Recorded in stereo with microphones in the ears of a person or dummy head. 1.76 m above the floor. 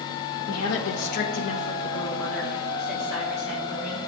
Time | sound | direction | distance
0.5 | a woman speaking | 70° left (ahead or behind) | 0.8 m